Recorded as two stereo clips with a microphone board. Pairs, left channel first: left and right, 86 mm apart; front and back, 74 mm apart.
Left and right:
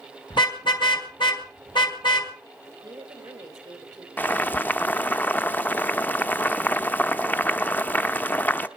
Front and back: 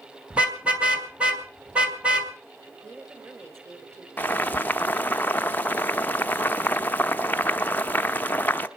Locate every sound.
0.3 s a car horn: 110° left, 2.5 m
2.6 s a woman speaking: 130° right, 3.5 m
4.2 s boiling: 45° left, 0.6 m